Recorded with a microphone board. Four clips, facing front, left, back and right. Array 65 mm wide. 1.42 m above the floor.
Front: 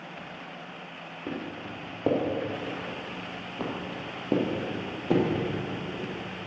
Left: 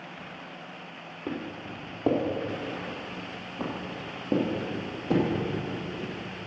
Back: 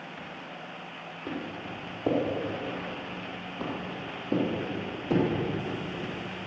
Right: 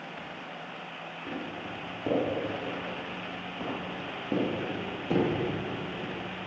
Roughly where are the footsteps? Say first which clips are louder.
Left 3 dB, even; ahead left.